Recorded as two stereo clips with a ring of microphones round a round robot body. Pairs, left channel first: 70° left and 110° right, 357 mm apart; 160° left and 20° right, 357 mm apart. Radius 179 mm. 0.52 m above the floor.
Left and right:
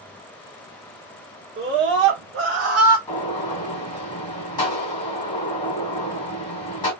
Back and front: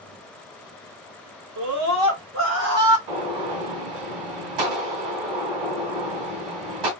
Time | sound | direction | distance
1.6 | a scream | 55° right | 1.6 m
3.1 | a gunshot | 10° right | 2.5 m